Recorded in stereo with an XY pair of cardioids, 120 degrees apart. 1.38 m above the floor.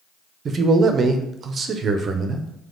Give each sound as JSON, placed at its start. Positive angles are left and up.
{"t": 0.5, "sound": "a man speaking", "azimuth_deg": -40, "distance_m": 0.6}